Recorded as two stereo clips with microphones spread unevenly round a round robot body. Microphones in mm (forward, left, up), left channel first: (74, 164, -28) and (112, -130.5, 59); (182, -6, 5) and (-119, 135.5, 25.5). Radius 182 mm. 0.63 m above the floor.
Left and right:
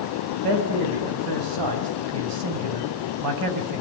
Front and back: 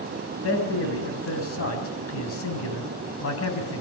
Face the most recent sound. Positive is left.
turn(degrees=-80)